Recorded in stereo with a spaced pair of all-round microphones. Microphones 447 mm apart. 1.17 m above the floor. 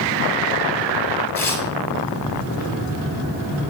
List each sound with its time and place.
1.4 s tearing paper: 45° left (ahead or behind), 3.5 m